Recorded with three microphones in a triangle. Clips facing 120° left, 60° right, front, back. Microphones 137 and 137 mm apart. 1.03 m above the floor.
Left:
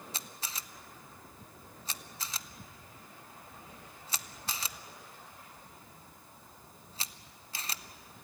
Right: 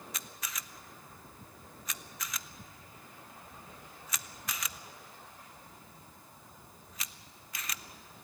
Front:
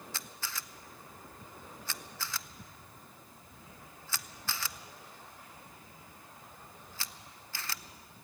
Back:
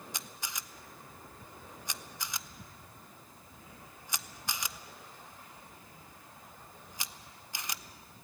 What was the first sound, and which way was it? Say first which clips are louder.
A camera shutter: even, front 1 dB; 125° left.